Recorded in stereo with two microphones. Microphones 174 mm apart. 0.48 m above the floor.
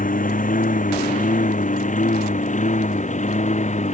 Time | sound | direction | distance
0.0 | a lawn mower | 50° left (ahead or behind) | ?